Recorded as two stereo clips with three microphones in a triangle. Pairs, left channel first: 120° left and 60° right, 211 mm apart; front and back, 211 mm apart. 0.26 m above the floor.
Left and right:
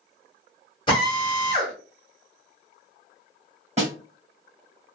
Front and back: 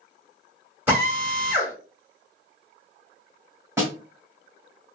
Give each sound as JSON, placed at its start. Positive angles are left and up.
{"t": 0.9, "sound": "a drill", "azimuth_deg": 115, "distance_m": 1.4}
{"t": 3.8, "sound": "a snare drum", "azimuth_deg": -105, "distance_m": 1.6}